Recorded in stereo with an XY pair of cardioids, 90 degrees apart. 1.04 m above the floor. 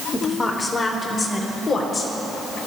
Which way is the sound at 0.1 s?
25° left.